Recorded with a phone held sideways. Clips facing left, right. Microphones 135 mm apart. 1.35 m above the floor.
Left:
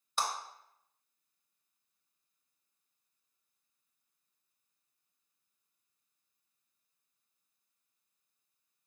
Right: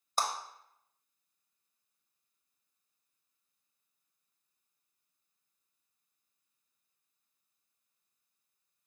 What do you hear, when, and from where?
0.2 s a clap: 40° right (ahead or behind), 0.8 m